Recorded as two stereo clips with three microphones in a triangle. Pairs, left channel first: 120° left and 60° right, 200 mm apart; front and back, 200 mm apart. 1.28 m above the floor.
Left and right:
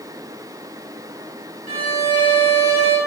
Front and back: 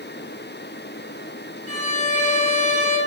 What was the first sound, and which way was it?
A violin, 110° right.